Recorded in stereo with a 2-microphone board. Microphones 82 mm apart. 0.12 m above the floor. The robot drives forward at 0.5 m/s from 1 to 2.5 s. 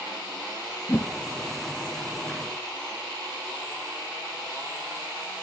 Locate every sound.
0.9 s a whoosh: 30° left (ahead or behind), 1.4 m; by 1.1 s 25° left (ahead or behind), 1.4 m